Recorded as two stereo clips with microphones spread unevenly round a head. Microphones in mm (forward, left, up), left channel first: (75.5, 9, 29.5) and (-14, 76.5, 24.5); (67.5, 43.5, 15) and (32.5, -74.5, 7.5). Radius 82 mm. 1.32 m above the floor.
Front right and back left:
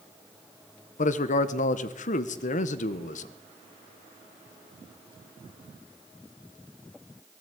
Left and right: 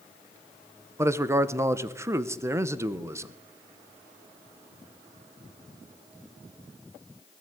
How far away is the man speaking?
About 1.1 m.